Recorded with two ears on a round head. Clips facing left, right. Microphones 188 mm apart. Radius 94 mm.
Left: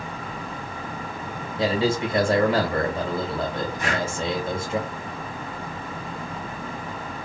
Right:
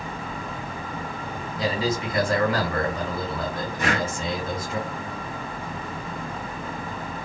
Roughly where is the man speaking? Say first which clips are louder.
Left 4 dB; left.